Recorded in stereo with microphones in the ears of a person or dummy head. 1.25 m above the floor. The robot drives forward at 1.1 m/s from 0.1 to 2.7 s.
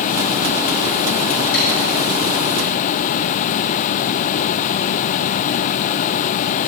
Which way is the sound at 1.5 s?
70° left (ahead or behind).